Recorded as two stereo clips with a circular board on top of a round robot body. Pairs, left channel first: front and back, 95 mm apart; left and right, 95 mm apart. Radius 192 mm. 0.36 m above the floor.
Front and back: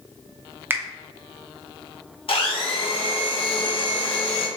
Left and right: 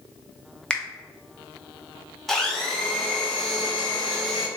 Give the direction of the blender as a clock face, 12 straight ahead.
12 o'clock.